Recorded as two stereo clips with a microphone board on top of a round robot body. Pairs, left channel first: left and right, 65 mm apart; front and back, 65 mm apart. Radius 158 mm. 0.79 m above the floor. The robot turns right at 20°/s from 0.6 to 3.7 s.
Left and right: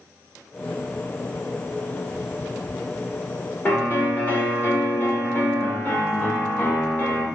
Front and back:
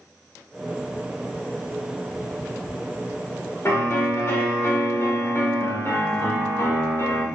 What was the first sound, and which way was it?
A piano, 40° left.